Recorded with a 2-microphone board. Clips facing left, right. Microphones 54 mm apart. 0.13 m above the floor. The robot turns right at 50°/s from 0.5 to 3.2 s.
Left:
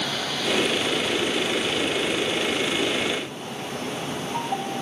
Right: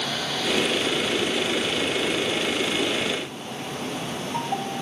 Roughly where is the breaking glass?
No breaking glass in this recording.